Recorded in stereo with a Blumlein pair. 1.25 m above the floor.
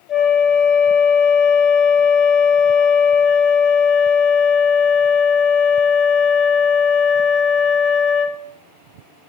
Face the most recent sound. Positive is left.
turn(degrees=25)